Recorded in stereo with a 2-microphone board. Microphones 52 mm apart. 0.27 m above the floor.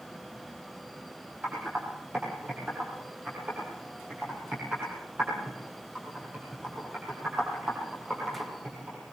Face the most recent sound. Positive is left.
turn(degrees=-35)  # may be behind; listen again after turning